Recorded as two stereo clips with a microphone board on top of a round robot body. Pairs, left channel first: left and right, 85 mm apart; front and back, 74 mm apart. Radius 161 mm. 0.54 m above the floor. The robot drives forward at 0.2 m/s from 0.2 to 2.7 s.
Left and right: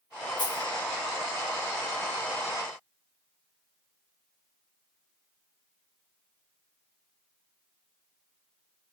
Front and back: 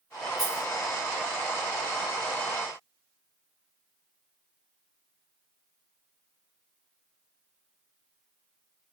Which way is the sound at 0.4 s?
60° left.